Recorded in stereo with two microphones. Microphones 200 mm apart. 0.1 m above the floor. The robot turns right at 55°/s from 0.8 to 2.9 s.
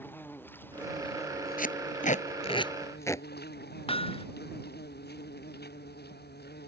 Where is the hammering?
30° left (ahead or behind).